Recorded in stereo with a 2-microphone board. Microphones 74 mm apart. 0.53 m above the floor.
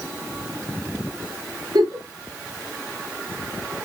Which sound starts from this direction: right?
A giggle, at 1.8 s.